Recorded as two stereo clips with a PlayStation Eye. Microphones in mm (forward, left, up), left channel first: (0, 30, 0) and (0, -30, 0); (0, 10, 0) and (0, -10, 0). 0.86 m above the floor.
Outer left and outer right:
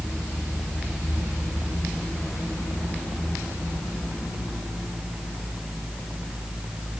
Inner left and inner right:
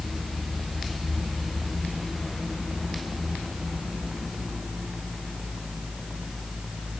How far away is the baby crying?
I don't hear a baby crying.